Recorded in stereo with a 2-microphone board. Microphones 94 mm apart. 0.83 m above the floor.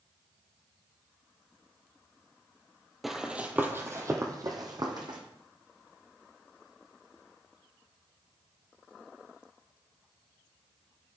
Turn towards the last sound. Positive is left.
turn(degrees=-50)  # may be behind; listen again after turning